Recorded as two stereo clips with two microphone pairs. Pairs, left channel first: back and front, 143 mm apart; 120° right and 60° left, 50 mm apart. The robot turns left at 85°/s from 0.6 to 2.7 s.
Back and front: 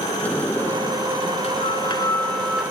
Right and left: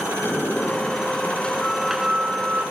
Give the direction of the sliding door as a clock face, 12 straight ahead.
4 o'clock.